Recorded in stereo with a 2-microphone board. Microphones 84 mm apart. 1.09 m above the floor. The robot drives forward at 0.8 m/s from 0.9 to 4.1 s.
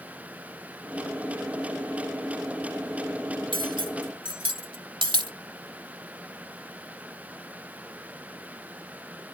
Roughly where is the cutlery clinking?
Right.